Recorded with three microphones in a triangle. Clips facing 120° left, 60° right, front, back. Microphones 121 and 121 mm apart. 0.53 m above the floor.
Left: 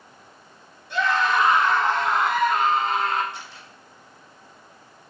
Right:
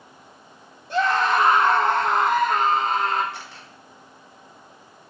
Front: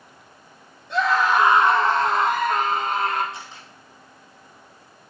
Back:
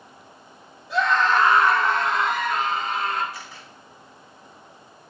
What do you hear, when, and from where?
0.9 s a scream: 95° right, 2 m; by 3.2 s 20° right, 3.5 m
3.3 s a camera shutter: 65° right, 3.5 m